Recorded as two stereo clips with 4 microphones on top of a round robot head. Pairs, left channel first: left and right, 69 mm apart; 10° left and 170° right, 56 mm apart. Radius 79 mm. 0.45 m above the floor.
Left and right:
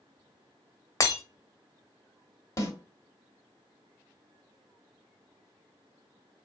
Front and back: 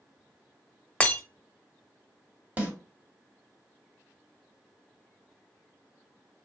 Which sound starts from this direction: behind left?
A snare drum, at 2.6 s.